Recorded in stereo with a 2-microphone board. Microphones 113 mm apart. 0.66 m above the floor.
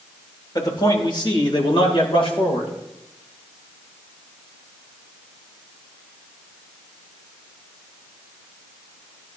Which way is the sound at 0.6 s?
40° left (ahead or behind).